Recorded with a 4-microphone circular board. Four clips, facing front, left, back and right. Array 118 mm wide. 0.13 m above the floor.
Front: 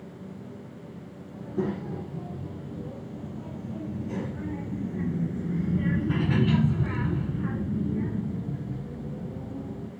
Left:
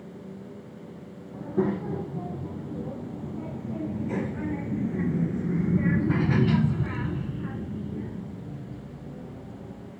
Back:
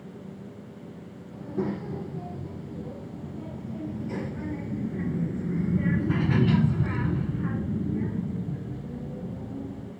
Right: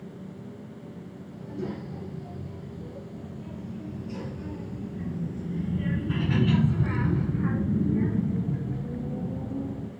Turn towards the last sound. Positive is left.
turn(degrees=-90)